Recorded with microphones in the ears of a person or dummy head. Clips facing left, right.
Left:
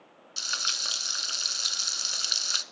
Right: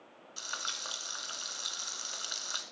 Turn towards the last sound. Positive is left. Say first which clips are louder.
# left 3 dB
turn(degrees=35)  # may be behind; listen again after turning